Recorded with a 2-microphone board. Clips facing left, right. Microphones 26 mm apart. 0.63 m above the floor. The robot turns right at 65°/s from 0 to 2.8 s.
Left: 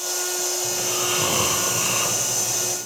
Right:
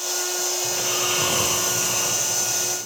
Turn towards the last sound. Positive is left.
turn(degrees=100)